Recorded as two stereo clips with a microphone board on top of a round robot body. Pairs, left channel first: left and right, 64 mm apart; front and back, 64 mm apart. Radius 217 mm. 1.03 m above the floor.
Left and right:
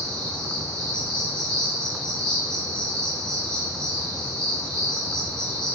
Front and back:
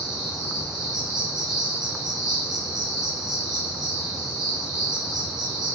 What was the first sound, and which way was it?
An insect, 170° left.